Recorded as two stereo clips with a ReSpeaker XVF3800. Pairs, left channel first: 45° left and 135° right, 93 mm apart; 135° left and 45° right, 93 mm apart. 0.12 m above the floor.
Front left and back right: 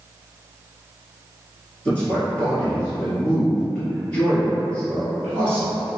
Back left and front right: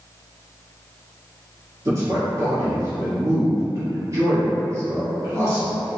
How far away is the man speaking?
About 1.5 m.